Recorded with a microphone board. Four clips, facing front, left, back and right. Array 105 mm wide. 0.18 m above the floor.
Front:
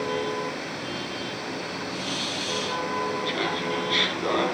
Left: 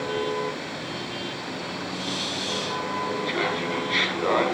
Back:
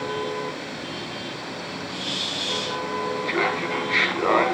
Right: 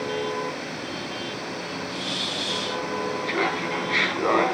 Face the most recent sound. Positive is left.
turn(degrees=-160)